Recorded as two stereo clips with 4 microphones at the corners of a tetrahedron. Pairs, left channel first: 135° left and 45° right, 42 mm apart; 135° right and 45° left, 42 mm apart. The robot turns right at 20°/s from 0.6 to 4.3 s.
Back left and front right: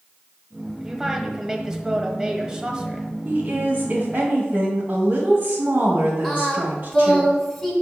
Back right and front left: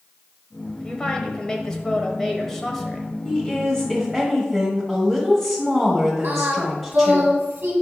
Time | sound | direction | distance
0.8 | a woman speaking | 105° right | 1.0 m
3.2 | a woman speaking | 60° right | 1.8 m
6.2 | singing | 45° left | 2 m